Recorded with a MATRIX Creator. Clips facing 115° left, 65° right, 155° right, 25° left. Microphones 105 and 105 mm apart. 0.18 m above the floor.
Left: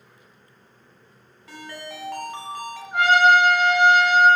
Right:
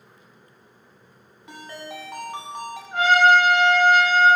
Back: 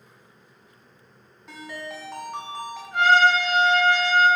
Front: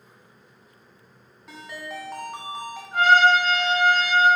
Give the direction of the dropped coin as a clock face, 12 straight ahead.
No dropped coin in this recording.